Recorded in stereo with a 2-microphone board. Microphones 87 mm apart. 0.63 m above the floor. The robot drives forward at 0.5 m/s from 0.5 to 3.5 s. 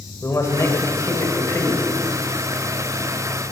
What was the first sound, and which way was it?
A man speaking, 40° left (ahead or behind).